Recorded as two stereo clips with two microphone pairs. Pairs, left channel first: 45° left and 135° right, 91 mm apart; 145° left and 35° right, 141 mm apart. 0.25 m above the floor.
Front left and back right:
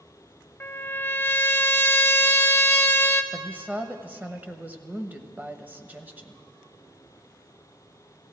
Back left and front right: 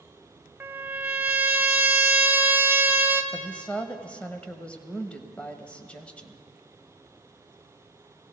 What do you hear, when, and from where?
0.6 s a trumpet: 15° left, 0.6 m
3.3 s a woman speaking: 145° right, 0.9 m